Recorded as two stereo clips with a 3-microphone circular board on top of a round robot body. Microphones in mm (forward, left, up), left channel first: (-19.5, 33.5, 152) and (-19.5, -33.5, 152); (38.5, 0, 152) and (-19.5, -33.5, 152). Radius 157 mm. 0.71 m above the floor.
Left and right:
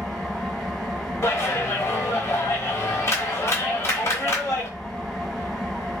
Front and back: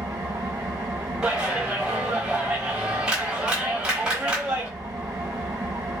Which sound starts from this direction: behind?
An engine running, at 0.0 s.